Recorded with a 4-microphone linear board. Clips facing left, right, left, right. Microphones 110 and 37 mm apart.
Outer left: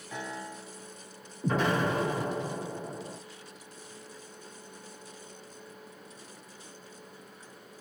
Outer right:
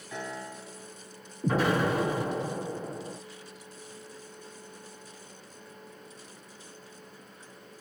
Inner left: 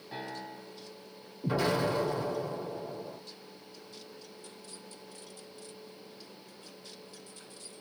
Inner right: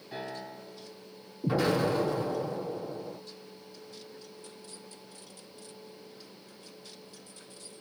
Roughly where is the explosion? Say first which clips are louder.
Outer right 2 dB, inner right 2 dB; centre.